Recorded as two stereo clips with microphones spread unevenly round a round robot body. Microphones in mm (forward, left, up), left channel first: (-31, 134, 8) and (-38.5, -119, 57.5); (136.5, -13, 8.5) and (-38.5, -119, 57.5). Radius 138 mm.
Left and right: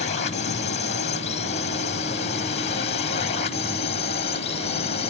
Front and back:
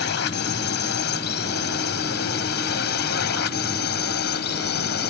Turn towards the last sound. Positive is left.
turn(degrees=30)